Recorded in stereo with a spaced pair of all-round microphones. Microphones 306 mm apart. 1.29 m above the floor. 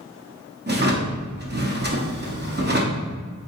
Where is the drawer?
35° right (ahead or behind), 0.7 m.